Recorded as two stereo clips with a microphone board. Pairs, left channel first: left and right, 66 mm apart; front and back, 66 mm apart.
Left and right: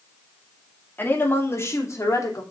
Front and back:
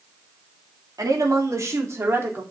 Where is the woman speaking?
150° left, 2.5 m; by 2.4 s 125° left, 3 m.